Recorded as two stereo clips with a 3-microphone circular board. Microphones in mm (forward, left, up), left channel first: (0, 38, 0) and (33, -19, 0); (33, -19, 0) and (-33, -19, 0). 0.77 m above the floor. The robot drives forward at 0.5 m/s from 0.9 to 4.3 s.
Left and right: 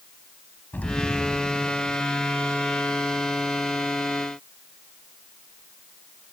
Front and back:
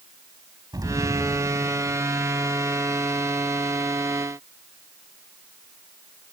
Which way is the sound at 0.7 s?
175° right.